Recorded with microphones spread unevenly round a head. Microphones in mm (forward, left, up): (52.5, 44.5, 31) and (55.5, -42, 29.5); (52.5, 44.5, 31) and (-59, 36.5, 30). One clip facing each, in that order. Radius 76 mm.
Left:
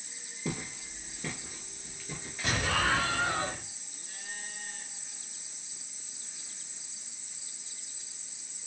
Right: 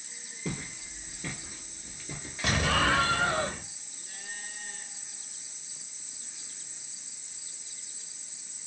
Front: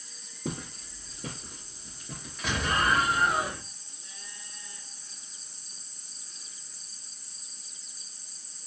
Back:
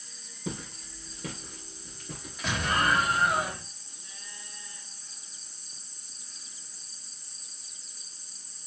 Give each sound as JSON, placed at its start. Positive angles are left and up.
{"t": 0.5, "sound": "footsteps", "azimuth_deg": 10, "distance_m": 1.5}
{"t": 2.4, "sound": "an explosion", "azimuth_deg": -85, "distance_m": 0.8}